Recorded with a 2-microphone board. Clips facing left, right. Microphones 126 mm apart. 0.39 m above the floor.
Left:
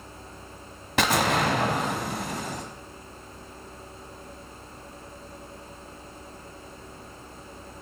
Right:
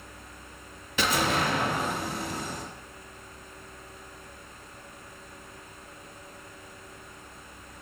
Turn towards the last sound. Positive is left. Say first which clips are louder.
# left 3 dB
turn(degrees=75)  # may be behind; listen again after turning